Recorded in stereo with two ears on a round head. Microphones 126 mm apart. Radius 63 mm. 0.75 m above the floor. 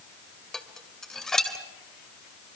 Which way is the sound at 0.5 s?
5° left (ahead or behind).